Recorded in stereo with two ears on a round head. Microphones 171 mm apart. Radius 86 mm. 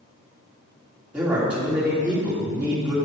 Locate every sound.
1.1 s a man speaking: 5° right (ahead or behind), 2.5 m